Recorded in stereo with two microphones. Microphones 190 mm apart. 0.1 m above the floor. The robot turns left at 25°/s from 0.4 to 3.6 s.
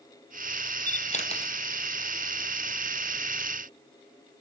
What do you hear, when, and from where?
0.9 s a camera shutter: 45° left (ahead or behind), 1.1 m; by 1.5 s 30° left (ahead or behind), 1.1 m